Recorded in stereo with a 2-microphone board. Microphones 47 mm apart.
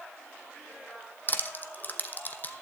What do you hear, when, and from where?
1.3 s crushing: 40° left (ahead or behind), 1.0 m